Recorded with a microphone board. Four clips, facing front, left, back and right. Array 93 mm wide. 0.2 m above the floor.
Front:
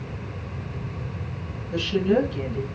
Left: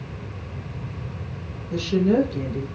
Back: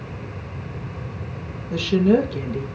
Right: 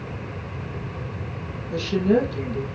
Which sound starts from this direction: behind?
A woman speaking, at 1.7 s.